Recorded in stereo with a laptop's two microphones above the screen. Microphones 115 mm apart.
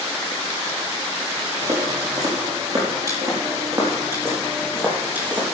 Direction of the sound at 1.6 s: 40° right (ahead or behind).